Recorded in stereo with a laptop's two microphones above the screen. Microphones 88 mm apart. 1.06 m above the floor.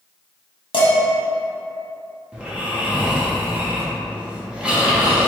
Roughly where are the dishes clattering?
Left.